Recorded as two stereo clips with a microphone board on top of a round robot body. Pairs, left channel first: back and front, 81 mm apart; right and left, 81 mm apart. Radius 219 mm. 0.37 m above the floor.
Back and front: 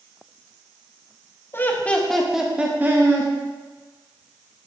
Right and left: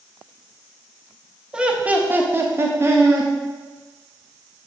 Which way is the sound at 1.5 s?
160° left.